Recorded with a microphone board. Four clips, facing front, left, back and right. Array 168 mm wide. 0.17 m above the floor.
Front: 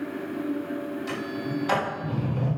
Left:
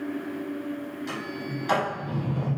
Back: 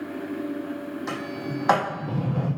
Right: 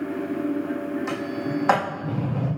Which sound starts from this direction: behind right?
A sliding door, at 1.1 s.